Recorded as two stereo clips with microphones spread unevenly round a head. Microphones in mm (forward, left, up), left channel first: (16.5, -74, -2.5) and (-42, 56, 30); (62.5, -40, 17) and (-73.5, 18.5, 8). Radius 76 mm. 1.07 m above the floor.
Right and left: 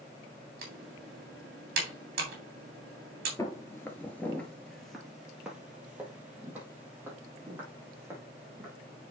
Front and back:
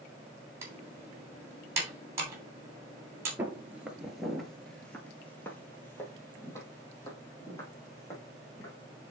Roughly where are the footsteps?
Behind right.